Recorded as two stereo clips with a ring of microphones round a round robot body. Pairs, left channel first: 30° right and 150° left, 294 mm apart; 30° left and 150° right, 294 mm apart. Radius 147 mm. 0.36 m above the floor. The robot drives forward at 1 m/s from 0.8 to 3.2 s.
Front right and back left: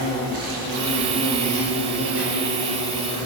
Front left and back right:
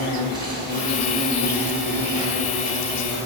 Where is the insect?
105° left, 2.5 m; by 3.3 s 140° left, 4 m.